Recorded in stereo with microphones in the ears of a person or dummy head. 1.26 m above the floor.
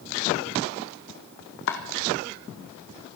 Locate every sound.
1.7 s chopping: 55° left (ahead or behind), 1.8 m